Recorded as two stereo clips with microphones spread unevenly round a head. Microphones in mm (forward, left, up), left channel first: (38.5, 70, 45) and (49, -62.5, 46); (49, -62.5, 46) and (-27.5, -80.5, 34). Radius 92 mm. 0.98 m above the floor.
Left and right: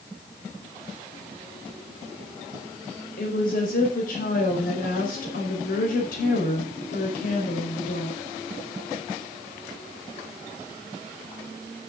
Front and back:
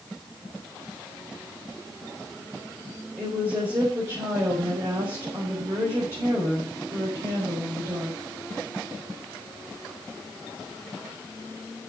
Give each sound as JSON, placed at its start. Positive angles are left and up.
{"t": 3.2, "sound": "a woman speaking", "azimuth_deg": 125, "distance_m": 4.5}